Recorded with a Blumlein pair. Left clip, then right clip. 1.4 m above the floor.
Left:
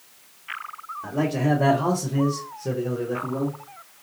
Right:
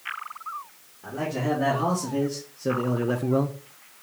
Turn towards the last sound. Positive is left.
turn(degrees=-65)